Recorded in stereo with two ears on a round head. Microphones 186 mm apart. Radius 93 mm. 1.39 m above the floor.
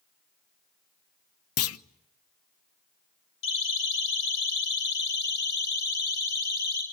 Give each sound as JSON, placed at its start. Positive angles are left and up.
{"t": 1.6, "sound": "a clunk", "side_deg": 80, "distance_m": 0.8}
{"t": 3.4, "sound": "a siren", "side_deg": 65, "distance_m": 7.0}